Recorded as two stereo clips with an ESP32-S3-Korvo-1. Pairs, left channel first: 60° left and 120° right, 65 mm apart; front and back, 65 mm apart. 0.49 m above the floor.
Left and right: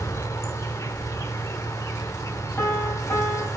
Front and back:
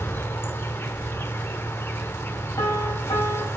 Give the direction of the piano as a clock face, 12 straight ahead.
12 o'clock.